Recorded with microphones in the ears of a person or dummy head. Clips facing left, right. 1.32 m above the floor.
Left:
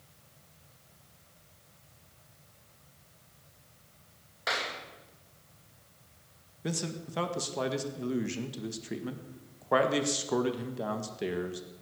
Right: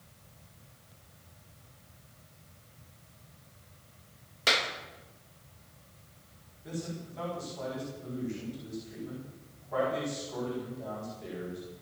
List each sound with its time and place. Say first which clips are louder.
4.5 s a clap: right 3 dB; 40° right (ahead or behind), 1.7 m
6.6 s a man speaking: left 3 dB; 80° left, 2.0 m